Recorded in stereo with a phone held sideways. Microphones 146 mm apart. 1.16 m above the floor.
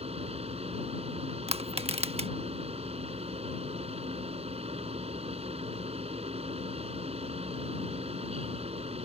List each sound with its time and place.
0.0 s a fan: 40° right (ahead or behind)
1.5 s crushing: 40° right (ahead or behind)